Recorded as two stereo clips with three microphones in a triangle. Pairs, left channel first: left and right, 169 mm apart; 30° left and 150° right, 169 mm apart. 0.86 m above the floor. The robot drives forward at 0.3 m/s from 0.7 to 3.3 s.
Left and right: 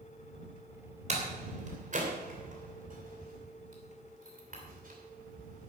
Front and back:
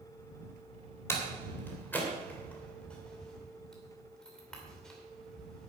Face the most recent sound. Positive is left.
turn(degrees=-55)